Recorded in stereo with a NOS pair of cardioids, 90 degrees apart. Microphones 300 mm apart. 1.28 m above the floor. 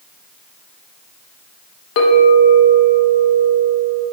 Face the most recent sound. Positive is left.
turn(degrees=55)